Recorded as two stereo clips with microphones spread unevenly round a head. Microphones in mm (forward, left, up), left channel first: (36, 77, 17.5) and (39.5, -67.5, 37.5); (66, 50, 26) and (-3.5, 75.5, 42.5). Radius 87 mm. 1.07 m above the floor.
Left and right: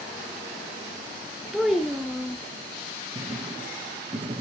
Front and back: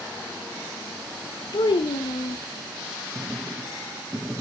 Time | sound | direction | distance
1.5 | a child speaking | 5° right | 0.6 m
3.1 | writing | 125° right | 0.6 m